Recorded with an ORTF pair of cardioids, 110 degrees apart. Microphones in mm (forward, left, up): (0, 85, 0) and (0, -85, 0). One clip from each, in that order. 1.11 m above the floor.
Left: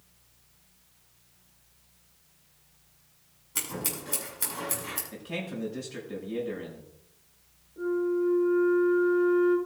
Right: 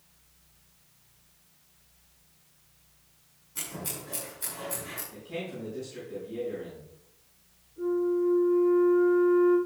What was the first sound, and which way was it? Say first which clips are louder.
Scissors: left 4 dB; 65° left.